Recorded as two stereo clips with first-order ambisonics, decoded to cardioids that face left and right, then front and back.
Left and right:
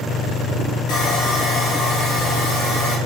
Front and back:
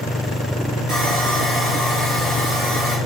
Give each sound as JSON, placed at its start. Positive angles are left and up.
{"t": 0.9, "sound": "sawing", "azimuth_deg": 125, "distance_m": 2.0}